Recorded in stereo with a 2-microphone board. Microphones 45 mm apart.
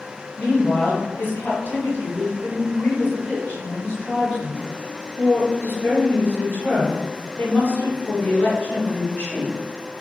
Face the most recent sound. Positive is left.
turn(degrees=45)  # may be behind; listen again after turning